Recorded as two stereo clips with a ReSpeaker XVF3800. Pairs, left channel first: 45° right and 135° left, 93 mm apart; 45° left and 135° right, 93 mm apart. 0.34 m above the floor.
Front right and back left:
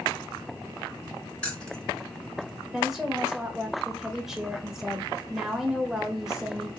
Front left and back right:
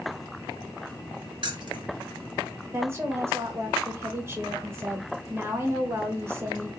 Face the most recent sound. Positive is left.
turn(degrees=-145)